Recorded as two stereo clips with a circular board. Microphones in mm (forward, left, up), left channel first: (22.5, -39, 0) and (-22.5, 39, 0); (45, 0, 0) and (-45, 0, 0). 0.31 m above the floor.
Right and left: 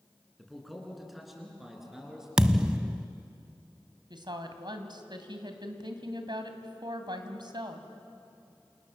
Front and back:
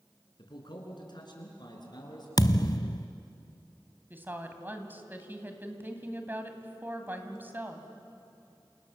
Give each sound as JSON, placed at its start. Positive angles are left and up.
{"t": 0.4, "sound": "a man speaking", "azimuth_deg": 30, "distance_m": 4.5}
{"t": 2.4, "sound": "a thud", "azimuth_deg": 40, "distance_m": 0.8}
{"t": 4.1, "sound": "a woman speaking", "azimuth_deg": 115, "distance_m": 2.5}